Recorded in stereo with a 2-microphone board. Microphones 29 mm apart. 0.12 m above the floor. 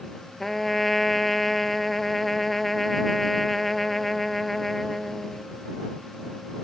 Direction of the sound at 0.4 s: 10° left (ahead or behind).